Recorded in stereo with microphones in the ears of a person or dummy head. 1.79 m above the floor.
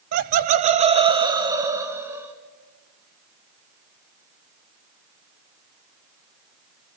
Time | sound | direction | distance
0.1 | laughter | 55° right (ahead or behind) | 1.0 m